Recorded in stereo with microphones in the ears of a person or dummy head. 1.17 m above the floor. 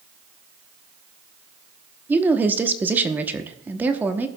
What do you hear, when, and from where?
2.1 s a woman speaking: 15° right (ahead or behind), 0.9 m